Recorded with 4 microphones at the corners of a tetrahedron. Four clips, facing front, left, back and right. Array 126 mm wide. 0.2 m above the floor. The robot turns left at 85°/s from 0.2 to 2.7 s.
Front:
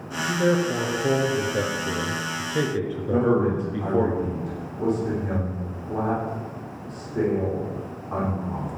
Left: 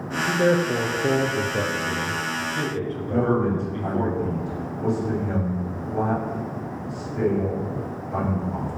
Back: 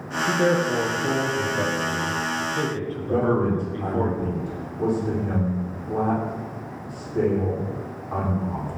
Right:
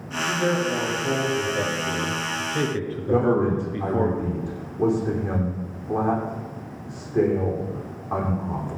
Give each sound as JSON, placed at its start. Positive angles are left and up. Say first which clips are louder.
{"t": 0.3, "sound": "a man speaking", "louder": "left 3 dB, back 1 dB", "azimuth_deg": 155, "distance_m": 3.0}
{"t": 3.1, "sound": "a man speaking", "louder": "right 2 dB, front 1 dB", "azimuth_deg": -90, "distance_m": 9.0}